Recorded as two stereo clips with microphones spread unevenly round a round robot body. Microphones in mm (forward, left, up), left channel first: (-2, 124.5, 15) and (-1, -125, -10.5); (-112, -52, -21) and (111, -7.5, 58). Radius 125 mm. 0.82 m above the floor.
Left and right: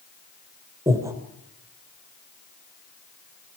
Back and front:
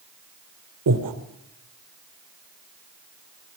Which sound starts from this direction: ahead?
Breathing, at 0.9 s.